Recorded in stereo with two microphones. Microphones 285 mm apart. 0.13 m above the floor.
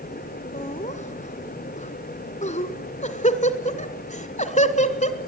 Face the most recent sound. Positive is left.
turn(degrees=25)  # may be behind; listen again after turning